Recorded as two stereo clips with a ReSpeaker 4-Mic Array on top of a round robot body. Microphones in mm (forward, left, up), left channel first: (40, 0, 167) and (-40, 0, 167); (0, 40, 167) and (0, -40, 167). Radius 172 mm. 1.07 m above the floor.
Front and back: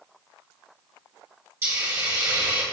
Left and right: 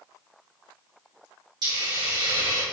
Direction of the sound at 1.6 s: 125° right.